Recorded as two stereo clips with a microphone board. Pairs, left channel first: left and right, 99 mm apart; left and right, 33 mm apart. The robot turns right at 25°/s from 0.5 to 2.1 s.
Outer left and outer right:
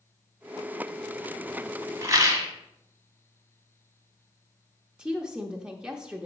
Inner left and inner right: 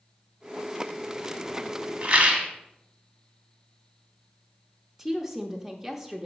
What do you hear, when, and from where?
2.0 s a rattle: 35° right (ahead or behind), 1.6 m
5.0 s a woman speaking: 10° right (ahead or behind), 0.7 m